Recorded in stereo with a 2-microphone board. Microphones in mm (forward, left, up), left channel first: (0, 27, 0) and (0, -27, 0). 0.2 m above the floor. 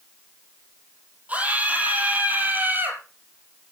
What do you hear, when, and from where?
1.3 s a scream: 25° right (ahead or behind), 6 m; by 3.0 s 35° right (ahead or behind), 5 m